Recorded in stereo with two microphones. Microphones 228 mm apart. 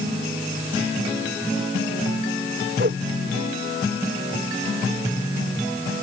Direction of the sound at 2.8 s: 50° right (ahead or behind).